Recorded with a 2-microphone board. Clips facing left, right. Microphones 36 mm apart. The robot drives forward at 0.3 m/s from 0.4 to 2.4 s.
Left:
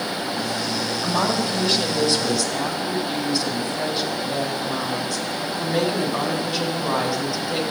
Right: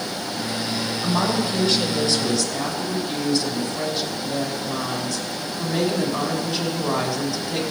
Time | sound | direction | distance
1.0 | a woman speaking | centre (ahead or behind) | 3.5 m